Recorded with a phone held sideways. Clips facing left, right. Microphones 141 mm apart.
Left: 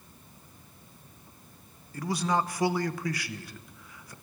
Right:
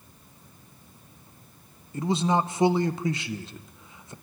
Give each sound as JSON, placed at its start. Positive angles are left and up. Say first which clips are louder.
{"t": 1.9, "sound": "a man speaking", "louder": "right 4 dB", "side_deg": -25, "distance_m": 1.1}